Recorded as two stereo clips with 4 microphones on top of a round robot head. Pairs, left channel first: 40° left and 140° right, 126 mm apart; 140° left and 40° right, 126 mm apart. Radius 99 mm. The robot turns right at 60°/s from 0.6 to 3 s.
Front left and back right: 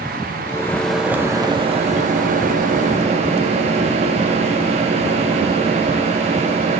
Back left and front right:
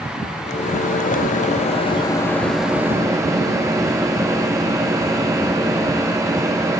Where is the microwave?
110° left, 0.9 m; by 6.8 s 105° right, 0.9 m.